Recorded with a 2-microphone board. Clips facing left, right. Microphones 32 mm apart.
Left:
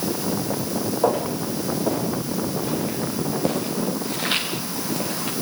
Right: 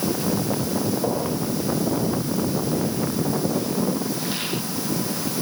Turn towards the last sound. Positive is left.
turn(degrees=50)  # may be behind; listen again after turning